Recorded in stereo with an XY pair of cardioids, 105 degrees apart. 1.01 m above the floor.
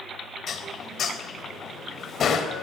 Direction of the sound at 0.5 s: 55° left.